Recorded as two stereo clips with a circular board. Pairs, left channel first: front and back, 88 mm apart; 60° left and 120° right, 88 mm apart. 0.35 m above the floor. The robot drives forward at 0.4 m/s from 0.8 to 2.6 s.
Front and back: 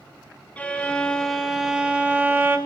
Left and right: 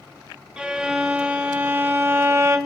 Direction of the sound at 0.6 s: 55° right.